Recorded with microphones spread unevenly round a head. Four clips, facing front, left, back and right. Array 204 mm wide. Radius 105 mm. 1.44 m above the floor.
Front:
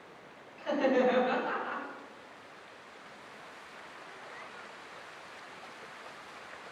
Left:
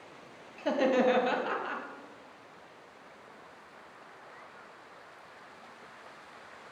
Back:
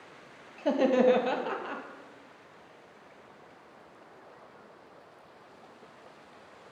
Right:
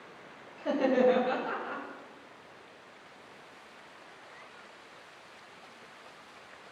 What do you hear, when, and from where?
0.6 s laughter: straight behind, 1.7 m